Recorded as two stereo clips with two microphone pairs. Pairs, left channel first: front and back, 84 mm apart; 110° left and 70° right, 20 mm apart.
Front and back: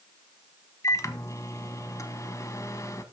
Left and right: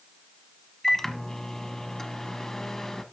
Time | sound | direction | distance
0.8 | a microwave | 40° left | 1.1 m